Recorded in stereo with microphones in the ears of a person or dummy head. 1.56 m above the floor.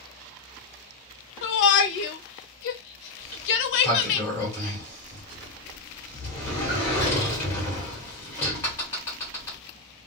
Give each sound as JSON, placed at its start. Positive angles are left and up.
{"t": 1.4, "sound": "a shout", "side_deg": 65, "distance_m": 0.9}
{"t": 3.2, "sound": "a sliding door", "side_deg": 10, "distance_m": 1.8}